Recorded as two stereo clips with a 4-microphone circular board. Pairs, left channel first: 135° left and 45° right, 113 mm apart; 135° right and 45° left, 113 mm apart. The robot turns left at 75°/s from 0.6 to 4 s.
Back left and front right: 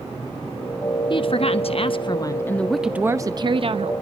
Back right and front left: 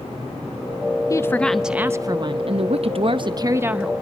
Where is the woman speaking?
170° left, 0.7 m; by 3.9 s 45° right, 0.7 m.